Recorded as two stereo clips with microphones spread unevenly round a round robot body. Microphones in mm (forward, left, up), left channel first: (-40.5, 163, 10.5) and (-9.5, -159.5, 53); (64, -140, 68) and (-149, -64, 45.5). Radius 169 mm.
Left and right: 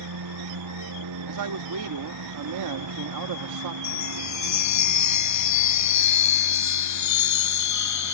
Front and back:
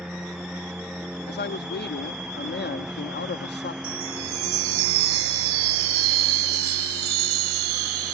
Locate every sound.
0.0 s a lawn mower: 110° right
1.3 s a man speaking: 60° right
3.8 s a chime: 130° left